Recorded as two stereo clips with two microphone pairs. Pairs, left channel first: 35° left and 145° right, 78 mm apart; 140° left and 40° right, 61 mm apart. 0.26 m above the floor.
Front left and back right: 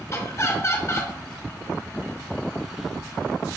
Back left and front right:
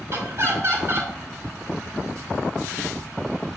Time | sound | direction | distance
0.1 | laughter | 15° right | 2.5 m